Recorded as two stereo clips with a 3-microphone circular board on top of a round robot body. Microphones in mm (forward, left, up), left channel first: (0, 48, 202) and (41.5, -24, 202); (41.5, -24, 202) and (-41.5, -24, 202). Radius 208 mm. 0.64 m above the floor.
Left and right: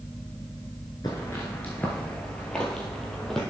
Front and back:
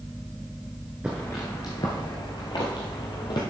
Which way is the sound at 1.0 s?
105° left.